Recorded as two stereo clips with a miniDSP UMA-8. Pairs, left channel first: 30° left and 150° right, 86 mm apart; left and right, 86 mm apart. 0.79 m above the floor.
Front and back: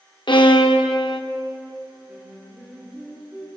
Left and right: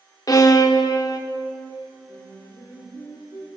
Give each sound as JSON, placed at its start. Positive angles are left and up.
{"t": 0.3, "sound": "a violin", "azimuth_deg": 45, "distance_m": 0.6}
{"t": 2.1, "sound": "singing", "azimuth_deg": 130, "distance_m": 2.0}